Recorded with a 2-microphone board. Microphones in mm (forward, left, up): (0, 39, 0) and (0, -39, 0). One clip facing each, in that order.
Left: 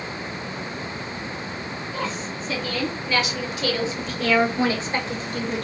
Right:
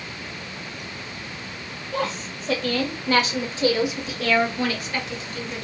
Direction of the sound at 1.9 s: 65° right (ahead or behind).